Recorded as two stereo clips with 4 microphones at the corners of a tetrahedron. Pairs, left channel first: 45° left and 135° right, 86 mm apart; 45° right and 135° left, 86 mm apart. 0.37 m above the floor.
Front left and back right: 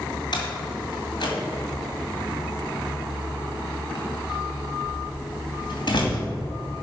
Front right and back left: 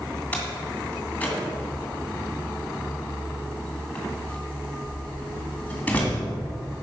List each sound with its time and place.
0.3 s a door slam: 25° left, 2 m